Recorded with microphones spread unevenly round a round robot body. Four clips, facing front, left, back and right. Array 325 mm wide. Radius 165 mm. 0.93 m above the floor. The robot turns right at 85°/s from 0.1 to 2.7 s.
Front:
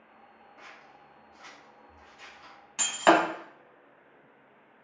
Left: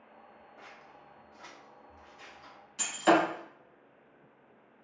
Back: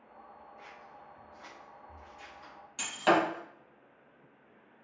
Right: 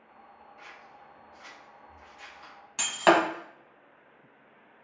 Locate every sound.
0.6 s scissors: 65° left, 0.9 m; by 3.5 s 115° right, 0.9 m
2.8 s breaking glass: 60° right, 1.1 m